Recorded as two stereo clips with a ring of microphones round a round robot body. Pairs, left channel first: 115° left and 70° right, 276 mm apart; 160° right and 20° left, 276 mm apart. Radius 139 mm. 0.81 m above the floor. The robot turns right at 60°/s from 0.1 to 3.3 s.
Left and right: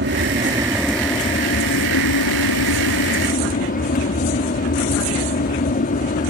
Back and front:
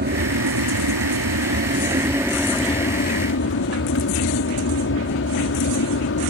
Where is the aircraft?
25° right; by 6.3 s 170° left.